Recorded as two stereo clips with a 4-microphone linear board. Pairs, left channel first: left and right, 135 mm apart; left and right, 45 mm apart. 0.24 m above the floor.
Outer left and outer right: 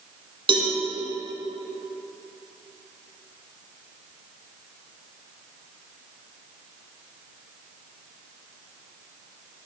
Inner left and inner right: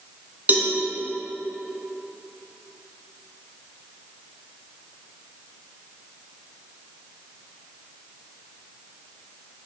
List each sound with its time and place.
0.5 s a cowbell: 40° right (ahead or behind), 1.7 m